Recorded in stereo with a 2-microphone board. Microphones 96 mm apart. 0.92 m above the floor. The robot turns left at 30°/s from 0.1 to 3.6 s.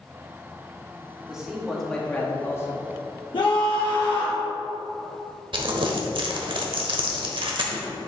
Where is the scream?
60° left (ahead or behind), 0.9 m.